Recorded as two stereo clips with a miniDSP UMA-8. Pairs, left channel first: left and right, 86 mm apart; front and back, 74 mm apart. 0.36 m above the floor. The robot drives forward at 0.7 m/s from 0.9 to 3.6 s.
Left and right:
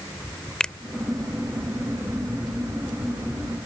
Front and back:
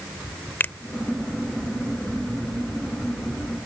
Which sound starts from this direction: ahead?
A finger snap, at 0.6 s.